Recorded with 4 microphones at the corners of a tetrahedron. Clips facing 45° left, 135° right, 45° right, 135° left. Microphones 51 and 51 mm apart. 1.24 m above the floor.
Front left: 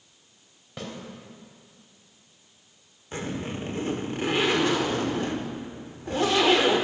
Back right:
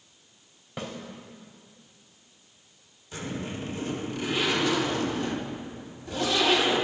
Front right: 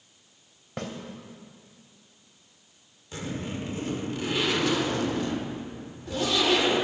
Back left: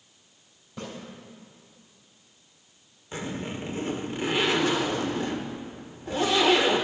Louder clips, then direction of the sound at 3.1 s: Front left 2 dB, back left 1 dB; 85° left.